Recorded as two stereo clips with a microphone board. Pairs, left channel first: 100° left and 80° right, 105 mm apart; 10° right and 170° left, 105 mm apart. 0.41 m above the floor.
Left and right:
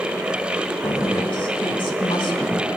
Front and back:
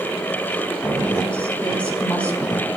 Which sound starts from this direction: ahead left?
A woman speaking, at 0.8 s.